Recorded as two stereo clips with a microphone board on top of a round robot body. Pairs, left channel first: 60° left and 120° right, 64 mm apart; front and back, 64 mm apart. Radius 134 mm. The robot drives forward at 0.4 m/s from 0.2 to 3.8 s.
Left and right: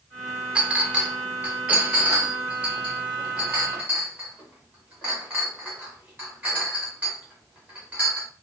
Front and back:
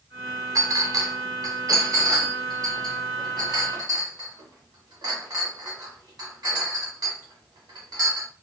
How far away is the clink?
About 0.8 m.